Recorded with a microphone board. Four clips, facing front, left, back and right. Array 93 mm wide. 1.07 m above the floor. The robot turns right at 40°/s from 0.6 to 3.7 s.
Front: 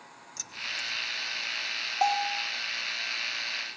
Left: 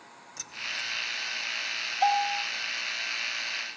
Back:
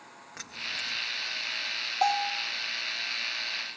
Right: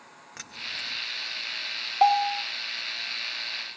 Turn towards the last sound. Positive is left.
turn(degrees=5)